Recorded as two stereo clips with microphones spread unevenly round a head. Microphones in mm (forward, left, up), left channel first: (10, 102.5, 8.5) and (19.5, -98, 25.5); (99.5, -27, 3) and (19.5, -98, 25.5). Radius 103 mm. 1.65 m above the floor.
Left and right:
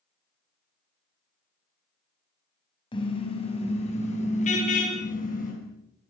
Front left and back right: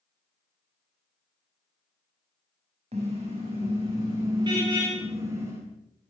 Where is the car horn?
160° left, 7 m; by 5.5 s 145° left, 9.5 m.